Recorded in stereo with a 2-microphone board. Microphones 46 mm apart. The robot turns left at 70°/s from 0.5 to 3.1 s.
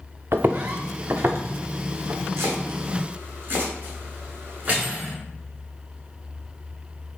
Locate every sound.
0.3 s footsteps: 55° right (ahead or behind), 0.5 m; by 2.3 s 85° right, 1.4 m
2.4 s chopping: 80° right, 1.9 m; by 4.9 s 45° right (ahead or behind), 1.9 m
4.7 s cutlery clinking: 25° right (ahead or behind), 1.0 m